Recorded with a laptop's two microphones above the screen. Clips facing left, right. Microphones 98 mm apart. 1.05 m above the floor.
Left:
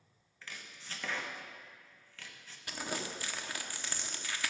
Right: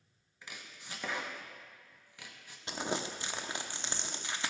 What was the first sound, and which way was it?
Chopping, 15° right (ahead or behind).